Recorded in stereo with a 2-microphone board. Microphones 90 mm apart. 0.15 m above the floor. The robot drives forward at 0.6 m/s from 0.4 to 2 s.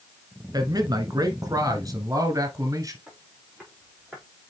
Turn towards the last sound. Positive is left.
turn(degrees=0)  # may be behind; listen again after turning